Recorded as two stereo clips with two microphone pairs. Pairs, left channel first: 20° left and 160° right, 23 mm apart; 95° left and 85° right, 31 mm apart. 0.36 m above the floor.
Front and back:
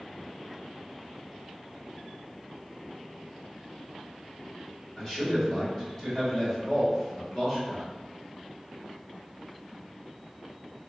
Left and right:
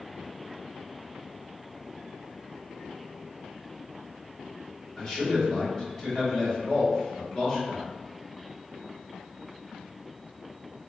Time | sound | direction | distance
5.0 | a man speaking | 60° left | 1.3 m